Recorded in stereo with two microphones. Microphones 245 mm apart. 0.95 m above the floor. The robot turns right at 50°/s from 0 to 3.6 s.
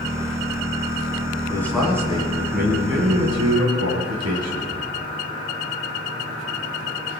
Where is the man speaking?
165° left, 9 m; by 4.8 s 90° right, 9 m.